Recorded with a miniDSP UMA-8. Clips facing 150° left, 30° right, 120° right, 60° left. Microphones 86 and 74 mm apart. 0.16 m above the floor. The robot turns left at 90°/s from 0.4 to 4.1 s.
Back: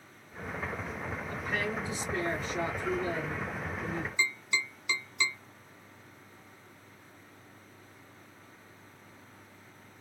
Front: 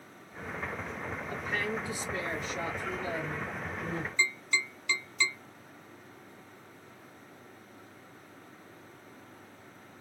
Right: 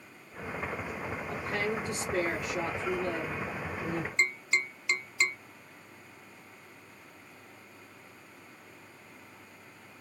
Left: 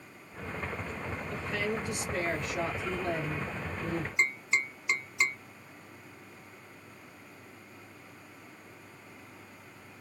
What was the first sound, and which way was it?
A woman speaking, 95° right.